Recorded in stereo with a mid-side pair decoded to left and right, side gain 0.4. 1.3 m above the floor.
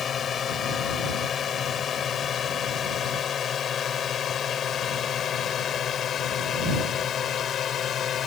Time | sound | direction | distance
0.0 | a drone | 55° left | ?